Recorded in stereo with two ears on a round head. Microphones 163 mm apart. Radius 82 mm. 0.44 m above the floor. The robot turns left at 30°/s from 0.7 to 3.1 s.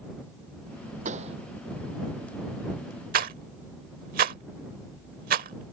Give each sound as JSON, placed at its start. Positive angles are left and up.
{"t": 1.1, "sound": "a pop", "side_deg": -45}
{"t": 3.1, "sound": "a rattle", "side_deg": -50}